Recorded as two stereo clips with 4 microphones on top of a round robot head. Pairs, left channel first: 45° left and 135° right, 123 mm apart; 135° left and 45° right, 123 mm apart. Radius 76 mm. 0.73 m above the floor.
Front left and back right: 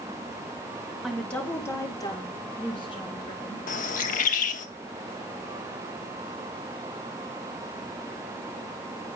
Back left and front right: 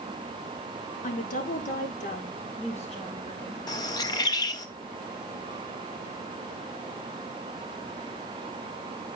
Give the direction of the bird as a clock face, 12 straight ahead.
10 o'clock.